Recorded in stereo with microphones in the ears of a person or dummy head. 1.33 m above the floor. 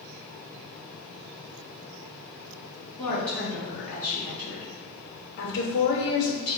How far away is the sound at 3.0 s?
About 1.7 m.